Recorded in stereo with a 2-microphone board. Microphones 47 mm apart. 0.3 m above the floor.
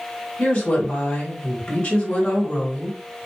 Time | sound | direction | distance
0.4 | a woman speaking | 30° left (ahead or behind) | 2 m